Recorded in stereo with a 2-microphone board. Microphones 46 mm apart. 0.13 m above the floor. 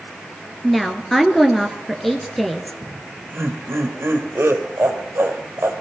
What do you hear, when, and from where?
0.6 s a woman speaking: 5° left (ahead or behind), 2.5 m
2.8 s laughter: 60° right (ahead or behind), 3.5 m